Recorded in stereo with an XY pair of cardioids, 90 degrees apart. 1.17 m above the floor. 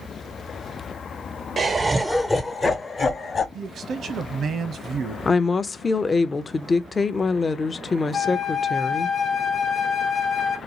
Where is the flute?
50° left, 0.7 m.